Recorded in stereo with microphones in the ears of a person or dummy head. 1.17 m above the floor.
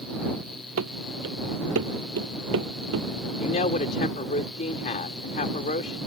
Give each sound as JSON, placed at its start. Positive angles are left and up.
{"t": 0.8, "sound": "running footsteps", "side_deg": -70}
{"t": 3.4, "sound": "a woman speaking", "side_deg": 45}